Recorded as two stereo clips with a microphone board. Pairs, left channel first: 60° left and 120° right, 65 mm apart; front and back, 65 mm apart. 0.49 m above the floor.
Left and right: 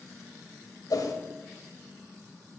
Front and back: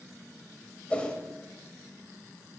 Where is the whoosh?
70° left, 1.1 m.